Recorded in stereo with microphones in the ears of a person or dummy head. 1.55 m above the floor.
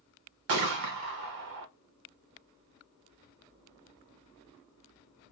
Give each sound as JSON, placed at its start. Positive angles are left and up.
{"t": 0.5, "sound": "a gunshot", "side_deg": -60, "distance_m": 0.6}